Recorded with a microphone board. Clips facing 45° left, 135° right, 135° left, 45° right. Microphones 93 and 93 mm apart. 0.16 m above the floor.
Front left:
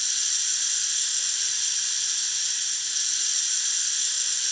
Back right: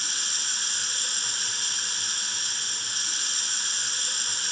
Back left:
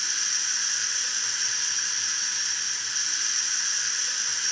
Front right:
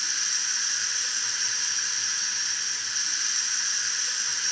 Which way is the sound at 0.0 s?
135° right.